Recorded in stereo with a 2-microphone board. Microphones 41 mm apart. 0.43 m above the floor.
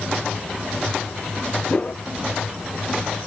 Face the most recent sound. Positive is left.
turn(degrees=40)  # may be behind; listen again after turning